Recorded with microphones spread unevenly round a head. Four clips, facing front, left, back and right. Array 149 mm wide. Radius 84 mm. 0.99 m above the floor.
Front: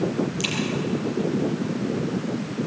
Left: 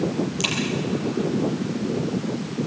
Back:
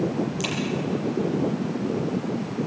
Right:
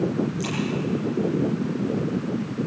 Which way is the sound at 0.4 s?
125° left.